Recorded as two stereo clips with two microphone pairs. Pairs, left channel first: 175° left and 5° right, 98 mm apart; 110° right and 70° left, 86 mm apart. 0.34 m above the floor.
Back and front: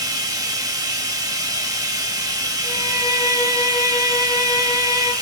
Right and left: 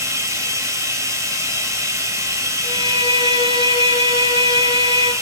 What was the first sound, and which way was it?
Running water, 30° left.